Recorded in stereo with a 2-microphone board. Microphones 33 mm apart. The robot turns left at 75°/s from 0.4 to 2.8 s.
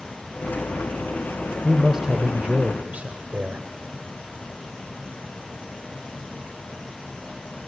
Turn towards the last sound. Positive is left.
turn(degrees=-85)